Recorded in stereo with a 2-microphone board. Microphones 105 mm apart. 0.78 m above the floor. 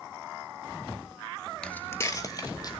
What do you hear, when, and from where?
1.6 s footsteps: 5° left (ahead or behind), 0.7 m; by 2.7 s 40° left (ahead or behind), 1.7 m